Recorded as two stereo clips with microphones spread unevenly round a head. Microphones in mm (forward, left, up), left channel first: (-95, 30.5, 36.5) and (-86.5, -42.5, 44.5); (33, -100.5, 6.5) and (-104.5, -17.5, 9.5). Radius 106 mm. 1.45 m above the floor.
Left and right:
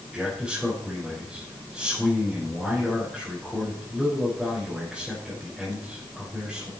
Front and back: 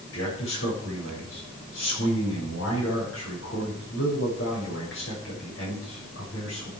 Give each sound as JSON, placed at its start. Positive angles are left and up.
{"t": 0.1, "sound": "a man speaking", "azimuth_deg": 5, "distance_m": 6.5}